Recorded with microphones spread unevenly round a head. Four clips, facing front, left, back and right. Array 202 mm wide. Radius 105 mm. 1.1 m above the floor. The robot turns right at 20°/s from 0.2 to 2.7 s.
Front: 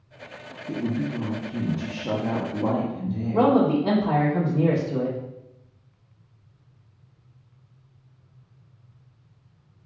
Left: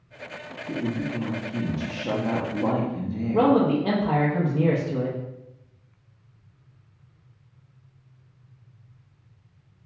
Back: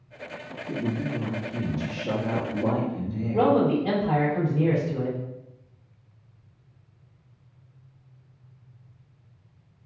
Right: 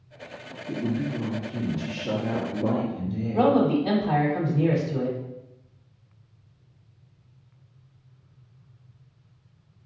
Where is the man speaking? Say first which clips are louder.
Left 1 dB, front 2 dB; 40° left, 1.2 m.